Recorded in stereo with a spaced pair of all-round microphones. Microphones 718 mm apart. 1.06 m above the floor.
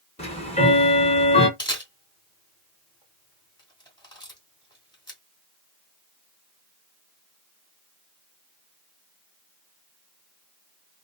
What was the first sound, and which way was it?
Ticking, 10° left (ahead or behind).